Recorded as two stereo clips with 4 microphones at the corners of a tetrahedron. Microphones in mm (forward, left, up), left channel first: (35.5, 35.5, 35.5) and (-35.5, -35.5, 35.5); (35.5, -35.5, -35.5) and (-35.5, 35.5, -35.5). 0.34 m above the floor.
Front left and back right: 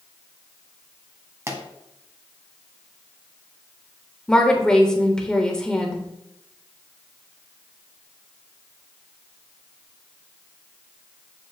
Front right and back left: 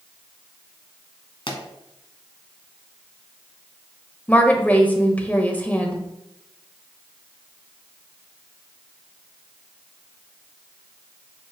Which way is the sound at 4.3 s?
20° right.